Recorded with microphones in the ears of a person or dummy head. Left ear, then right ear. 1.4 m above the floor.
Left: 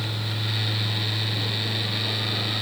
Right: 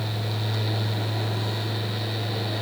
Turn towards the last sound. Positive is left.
No sound to turn to.